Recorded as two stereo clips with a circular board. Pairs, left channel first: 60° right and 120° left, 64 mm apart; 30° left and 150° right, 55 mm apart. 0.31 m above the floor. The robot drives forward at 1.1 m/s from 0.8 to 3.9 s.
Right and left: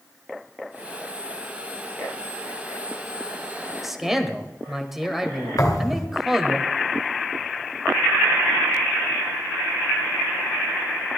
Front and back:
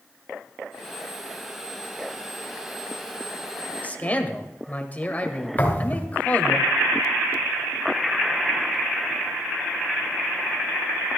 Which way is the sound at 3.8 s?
35° left.